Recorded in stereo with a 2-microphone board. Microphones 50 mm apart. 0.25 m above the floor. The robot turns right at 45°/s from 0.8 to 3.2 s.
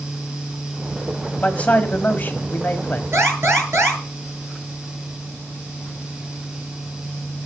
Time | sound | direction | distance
1.4 | a man speaking | 45° left | 1.4 m
3.1 | an alarm | 65° right (ahead or behind) | 7.5 m